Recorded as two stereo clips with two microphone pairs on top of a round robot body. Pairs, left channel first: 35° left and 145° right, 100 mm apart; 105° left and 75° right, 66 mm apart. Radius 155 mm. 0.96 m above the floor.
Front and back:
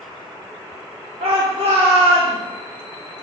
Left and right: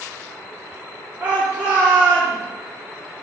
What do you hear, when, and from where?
1.2 s a shout: 145° right, 3.5 m